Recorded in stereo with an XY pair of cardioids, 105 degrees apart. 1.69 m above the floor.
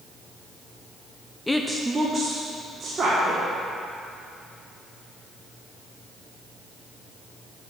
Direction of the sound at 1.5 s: 15° left.